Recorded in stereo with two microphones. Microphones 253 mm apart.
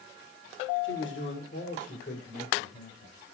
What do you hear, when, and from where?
0.8 s a man speaking: 50° left (ahead or behind), 1.7 m; by 3.1 s 35° left (ahead or behind), 4 m